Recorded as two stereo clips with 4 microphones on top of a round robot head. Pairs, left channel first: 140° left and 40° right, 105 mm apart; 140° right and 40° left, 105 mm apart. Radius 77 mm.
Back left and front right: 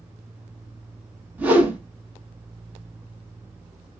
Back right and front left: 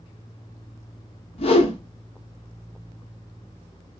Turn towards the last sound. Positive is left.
turn(degrees=-115)